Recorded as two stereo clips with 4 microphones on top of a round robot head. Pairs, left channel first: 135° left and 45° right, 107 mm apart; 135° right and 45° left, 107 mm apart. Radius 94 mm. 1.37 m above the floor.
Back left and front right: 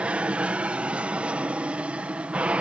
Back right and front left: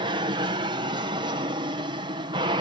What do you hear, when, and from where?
0.0 s an aircraft: 30° left